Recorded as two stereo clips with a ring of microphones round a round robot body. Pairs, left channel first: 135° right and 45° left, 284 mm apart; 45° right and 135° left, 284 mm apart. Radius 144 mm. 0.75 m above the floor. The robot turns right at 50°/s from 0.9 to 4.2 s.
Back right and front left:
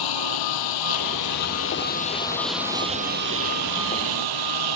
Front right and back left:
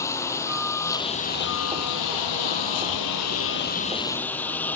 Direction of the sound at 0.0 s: 125° right.